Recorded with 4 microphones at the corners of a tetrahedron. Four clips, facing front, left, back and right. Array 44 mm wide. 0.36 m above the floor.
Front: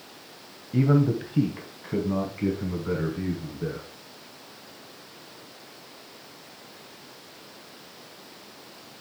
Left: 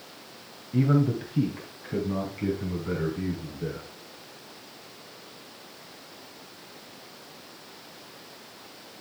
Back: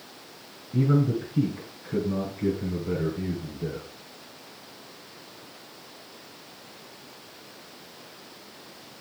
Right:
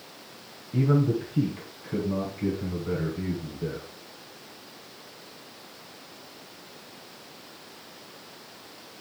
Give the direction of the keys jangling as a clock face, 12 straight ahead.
No keys jangling in this recording.